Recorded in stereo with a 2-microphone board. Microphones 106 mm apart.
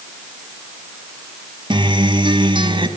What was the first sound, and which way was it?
A guitar, 50° right (ahead or behind).